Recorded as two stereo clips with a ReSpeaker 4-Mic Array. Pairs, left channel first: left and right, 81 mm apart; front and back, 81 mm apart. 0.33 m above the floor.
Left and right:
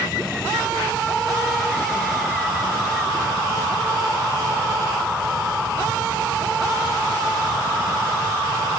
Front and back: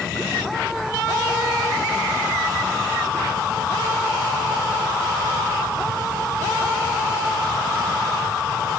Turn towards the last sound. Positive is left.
No sound to turn to.